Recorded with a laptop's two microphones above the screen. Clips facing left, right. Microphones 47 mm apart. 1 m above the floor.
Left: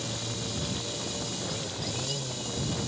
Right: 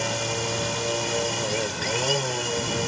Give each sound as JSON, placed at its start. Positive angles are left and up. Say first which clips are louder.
{"t": 0.0, "sound": "a machine running", "louder": "right 9 dB", "side_deg": -65}